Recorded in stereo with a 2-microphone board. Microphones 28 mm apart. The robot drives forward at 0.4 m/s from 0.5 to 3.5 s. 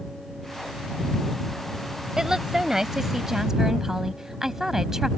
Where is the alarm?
No alarm in this recording.